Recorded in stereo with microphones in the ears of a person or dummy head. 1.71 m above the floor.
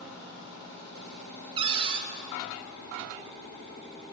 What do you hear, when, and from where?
1.6 s a cupboard door: 35° right (ahead or behind), 1.1 m